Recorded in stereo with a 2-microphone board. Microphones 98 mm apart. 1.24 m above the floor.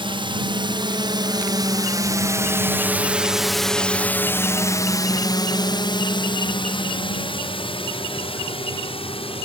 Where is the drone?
60° right (ahead or behind); by 9.4 s 70° left (ahead or behind).